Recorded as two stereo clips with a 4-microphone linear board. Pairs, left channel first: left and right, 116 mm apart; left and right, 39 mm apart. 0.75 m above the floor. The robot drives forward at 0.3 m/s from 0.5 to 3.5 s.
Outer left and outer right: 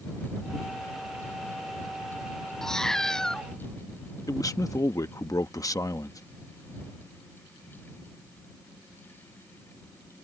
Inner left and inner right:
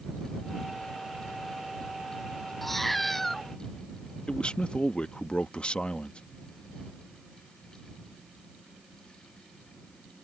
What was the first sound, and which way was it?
A cat meowing, 5° left (ahead or behind).